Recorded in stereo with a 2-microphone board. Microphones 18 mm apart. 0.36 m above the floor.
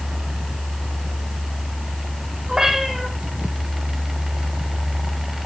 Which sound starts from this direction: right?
A cat meowing, at 2.5 s.